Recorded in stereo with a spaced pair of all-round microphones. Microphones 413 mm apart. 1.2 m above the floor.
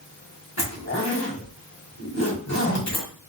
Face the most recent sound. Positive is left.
turn(degrees=40)  # may be behind; listen again after turning